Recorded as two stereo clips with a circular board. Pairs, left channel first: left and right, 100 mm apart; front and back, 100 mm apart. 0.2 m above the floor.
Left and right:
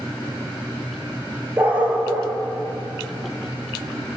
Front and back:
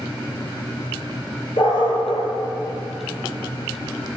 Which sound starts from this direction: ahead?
A dog barking, at 1.6 s.